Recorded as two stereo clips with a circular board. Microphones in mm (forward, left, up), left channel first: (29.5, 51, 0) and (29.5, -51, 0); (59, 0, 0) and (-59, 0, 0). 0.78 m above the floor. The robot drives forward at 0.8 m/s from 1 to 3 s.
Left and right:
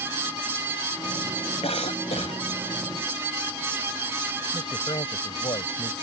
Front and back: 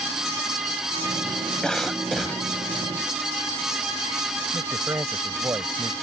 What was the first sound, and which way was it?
A cough, 85° left.